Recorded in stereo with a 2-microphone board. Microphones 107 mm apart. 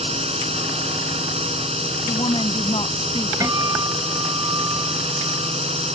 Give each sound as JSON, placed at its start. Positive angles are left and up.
{"t": 0.0, "sound": "a drone", "side_deg": -70}
{"t": 2.1, "sound": "a woman speaking", "side_deg": 50}
{"t": 3.4, "sound": "a guitar", "side_deg": -35}